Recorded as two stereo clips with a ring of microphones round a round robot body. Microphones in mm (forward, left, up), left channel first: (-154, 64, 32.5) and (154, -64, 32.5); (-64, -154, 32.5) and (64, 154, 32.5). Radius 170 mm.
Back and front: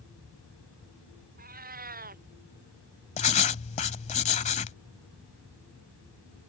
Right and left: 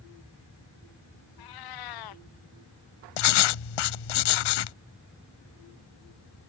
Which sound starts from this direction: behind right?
Writing, at 3.2 s.